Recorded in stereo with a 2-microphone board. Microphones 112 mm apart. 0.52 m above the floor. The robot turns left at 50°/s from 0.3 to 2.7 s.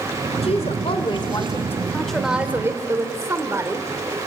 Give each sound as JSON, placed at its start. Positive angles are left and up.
{"t": 0.4, "sound": "a woman speaking", "azimuth_deg": 90, "distance_m": 1.7}